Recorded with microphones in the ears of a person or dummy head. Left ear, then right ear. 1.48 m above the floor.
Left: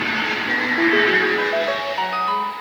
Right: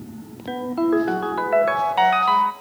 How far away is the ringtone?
About 1.7 m.